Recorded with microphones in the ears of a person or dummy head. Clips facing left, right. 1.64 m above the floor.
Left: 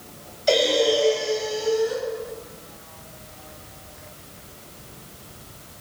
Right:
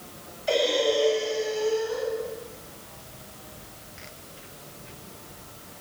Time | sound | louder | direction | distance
0.5 | breathing | left 4 dB | 60° left (ahead or behind) | 7.5 m